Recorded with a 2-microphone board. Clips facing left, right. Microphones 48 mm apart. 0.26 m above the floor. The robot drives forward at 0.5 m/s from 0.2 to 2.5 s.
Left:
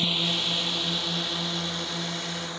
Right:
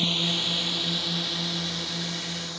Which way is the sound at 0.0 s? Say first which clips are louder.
Even; 5° left (ahead or behind).